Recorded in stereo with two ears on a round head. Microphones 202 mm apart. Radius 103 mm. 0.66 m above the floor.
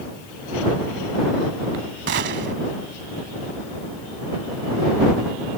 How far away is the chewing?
No chewing in this recording.